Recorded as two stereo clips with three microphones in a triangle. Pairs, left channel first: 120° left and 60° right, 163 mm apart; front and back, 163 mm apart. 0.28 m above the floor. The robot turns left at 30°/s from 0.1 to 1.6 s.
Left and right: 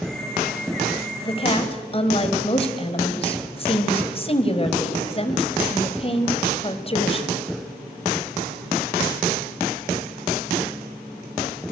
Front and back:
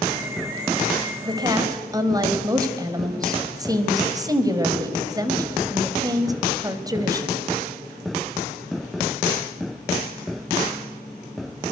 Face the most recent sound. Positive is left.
turn(degrees=130)